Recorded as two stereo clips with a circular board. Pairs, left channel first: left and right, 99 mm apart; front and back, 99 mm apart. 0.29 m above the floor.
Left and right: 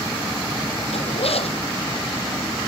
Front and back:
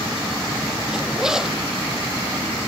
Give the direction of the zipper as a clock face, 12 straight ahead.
9 o'clock.